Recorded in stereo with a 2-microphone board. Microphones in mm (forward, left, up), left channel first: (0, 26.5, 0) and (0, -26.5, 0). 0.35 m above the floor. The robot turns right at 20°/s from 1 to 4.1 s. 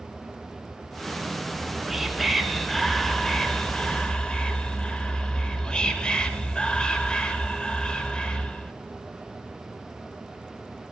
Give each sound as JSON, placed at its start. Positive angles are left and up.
{"t": 1.5, "sound": "whispering", "azimuth_deg": -20, "distance_m": 1.0}